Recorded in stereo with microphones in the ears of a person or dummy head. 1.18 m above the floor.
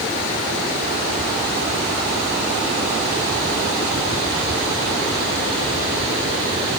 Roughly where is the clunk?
I don't hear a clunk.